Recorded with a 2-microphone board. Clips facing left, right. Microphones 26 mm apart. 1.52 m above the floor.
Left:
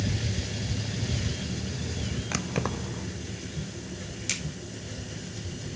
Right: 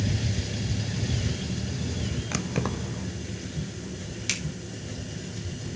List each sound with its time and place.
2.3 s keys jangling: 5° left (ahead or behind), 0.6 m
4.3 s a finger snap: 20° right (ahead or behind), 4 m